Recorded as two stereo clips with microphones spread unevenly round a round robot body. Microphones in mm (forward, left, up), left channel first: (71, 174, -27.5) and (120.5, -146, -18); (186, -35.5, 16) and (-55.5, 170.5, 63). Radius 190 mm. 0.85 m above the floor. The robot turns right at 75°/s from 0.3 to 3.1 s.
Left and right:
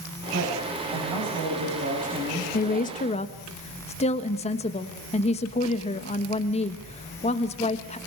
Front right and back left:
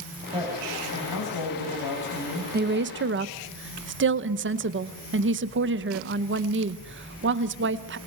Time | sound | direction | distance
0.3 | a woman speaking | 145° right | 5.5 m
2.5 | a woman speaking | 100° left | 0.9 m